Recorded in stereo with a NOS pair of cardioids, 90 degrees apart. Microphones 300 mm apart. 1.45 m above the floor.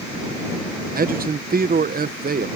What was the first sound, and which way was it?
A man speaking, 30° right.